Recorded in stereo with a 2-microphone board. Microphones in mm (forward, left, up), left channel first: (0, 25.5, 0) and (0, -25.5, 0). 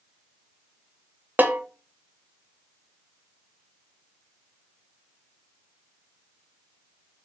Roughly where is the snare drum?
Right.